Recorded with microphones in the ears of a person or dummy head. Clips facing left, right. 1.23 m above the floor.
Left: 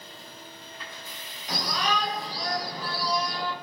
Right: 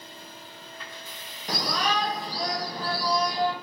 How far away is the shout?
About 3 m.